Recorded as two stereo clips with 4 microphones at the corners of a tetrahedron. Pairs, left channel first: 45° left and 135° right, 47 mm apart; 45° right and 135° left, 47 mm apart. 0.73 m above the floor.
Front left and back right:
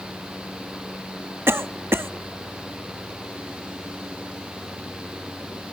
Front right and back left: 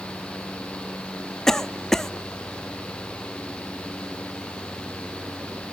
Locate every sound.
1.5 s a cough: 125° right, 0.9 m